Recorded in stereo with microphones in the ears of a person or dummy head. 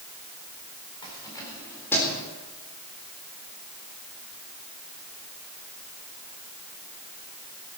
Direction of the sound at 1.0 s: 25° left (ahead or behind).